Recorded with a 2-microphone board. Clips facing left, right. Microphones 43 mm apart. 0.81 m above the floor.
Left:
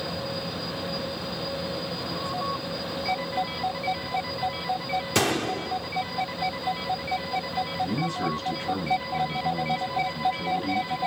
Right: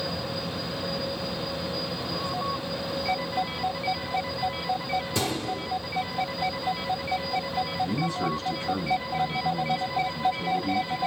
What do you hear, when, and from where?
5.2 s a gunshot: 65° left (ahead or behind), 1.1 m
7.8 s a man speaking: 55° left (ahead or behind), 6 m